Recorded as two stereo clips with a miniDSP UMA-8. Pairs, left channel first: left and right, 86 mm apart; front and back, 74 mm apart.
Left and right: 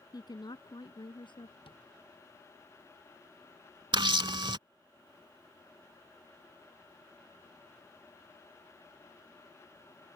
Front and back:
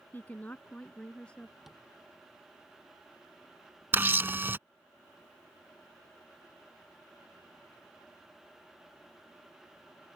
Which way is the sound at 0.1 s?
60° left.